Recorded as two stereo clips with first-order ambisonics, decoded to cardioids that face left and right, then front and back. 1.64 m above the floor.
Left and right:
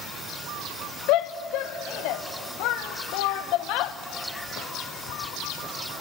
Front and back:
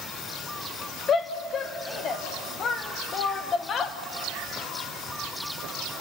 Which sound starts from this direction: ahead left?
A shout, at 1.1 s.